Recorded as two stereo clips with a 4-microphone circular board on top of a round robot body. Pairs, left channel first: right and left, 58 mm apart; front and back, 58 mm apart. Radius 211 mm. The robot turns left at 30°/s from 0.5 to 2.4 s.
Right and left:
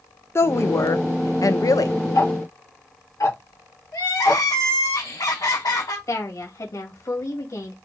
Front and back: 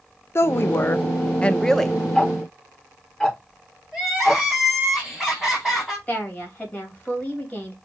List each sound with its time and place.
0.3 s a woman speaking: 45° right, 0.7 m; by 2.0 s 90° right, 0.7 m
2.1 s ticking: 75° right, 3 m; by 4.4 s 80° right, 3 m
3.9 s crying: 90° right, 3.5 m
6.1 s a woman speaking: 65° right, 2.5 m